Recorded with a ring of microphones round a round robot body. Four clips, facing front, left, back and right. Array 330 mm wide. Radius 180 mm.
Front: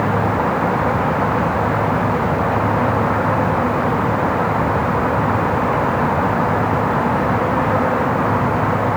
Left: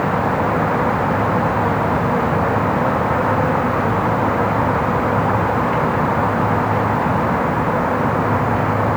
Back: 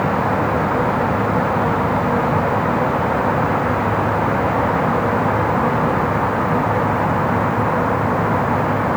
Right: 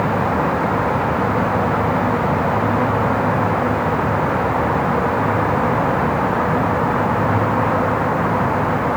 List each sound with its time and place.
Only background noise.